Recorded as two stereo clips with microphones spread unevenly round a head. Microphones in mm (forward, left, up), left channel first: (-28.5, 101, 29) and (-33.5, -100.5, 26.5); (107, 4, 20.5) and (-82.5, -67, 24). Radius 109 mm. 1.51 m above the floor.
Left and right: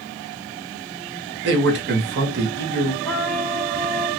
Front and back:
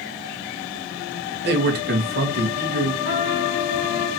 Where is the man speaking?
125° right, 2.0 m.